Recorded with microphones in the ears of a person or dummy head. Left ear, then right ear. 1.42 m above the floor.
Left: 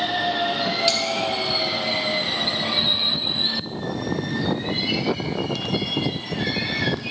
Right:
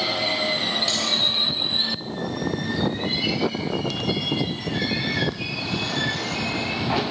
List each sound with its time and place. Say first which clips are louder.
0.9 s cutlery clinking: left 3 dB; 35° left (ahead or behind), 3 m